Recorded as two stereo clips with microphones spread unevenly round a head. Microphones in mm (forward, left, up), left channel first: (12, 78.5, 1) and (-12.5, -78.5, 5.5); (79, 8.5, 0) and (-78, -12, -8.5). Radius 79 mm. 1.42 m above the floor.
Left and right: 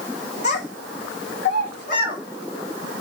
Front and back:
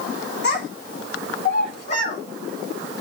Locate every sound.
0.4 s a child speaking: 35° left, 5 m; by 2.2 s 50° left, 5 m